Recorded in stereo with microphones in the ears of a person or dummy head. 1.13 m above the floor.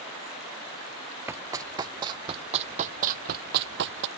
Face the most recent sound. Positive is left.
turn(degrees=-70)  # may be behind; listen again after turning